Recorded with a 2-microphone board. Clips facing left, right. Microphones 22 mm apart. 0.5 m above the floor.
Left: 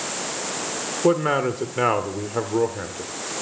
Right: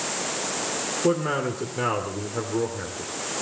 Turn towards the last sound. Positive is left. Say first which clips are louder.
# left 5 dB
turn(degrees=35)  # may be behind; listen again after turning